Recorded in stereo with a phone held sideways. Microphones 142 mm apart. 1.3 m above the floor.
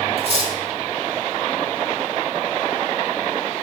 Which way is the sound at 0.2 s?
45° right (ahead or behind).